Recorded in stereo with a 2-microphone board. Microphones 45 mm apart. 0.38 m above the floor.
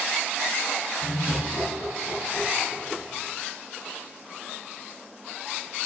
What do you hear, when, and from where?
1.0 s laughter: 50° left (ahead or behind), 6.5 m